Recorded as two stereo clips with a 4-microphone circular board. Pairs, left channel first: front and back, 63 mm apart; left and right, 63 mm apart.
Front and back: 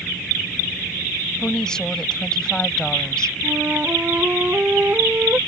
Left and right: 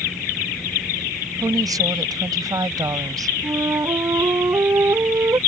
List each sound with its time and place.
1.4 s a woman speaking: 80° right
3.4 s a flute: 120° right